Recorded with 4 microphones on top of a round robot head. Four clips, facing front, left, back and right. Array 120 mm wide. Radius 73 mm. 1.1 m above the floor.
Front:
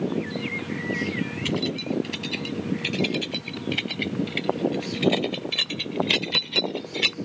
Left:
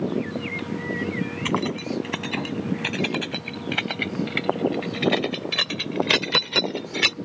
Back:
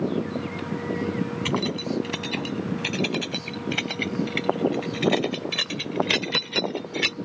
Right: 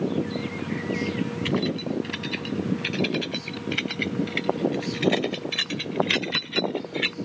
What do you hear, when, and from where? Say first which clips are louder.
1.4 s keys jangling: left 1 dB, front 2 dB; 115° left; by 7.2 s 90° left